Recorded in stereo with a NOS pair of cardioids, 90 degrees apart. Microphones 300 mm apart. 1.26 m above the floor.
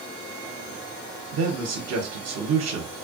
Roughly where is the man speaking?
Ahead right.